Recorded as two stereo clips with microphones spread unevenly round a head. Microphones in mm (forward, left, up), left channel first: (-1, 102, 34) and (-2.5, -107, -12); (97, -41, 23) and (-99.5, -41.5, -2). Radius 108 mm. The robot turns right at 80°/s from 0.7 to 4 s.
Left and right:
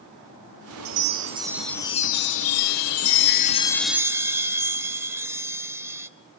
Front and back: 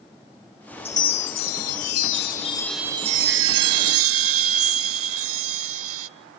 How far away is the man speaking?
No man speaking in this recording.